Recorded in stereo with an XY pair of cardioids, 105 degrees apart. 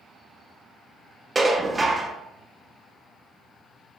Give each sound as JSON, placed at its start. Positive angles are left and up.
{"t": 1.4, "sound": "dishes clattering", "azimuth_deg": -15, "distance_m": 0.6}